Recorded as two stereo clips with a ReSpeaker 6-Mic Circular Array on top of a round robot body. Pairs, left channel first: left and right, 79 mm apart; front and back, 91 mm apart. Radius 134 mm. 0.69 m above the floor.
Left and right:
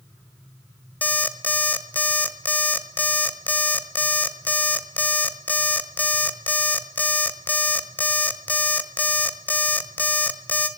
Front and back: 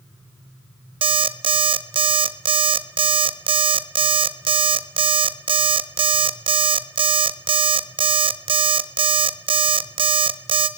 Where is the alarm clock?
160° left, 1.5 m.